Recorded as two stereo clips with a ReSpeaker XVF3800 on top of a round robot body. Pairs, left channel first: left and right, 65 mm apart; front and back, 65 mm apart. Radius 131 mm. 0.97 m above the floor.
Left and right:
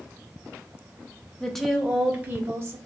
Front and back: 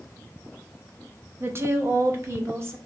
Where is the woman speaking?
160° left, 0.8 m; by 2.8 s 135° right, 1.1 m.